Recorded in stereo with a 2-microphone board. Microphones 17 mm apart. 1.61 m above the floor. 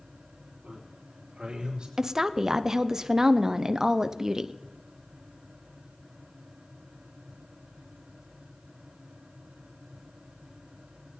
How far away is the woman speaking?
About 0.7 m.